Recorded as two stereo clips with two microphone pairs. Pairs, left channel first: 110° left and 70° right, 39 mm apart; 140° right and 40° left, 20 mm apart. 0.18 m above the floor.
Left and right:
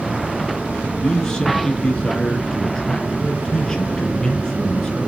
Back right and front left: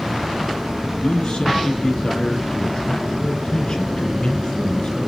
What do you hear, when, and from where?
1.0 s a man speaking: straight behind, 5 m